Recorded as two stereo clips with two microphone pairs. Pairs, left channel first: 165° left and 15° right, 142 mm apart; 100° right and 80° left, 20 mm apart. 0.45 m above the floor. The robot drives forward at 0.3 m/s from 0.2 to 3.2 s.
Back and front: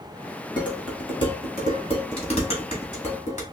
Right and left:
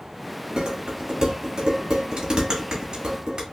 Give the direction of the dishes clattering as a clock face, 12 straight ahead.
8 o'clock.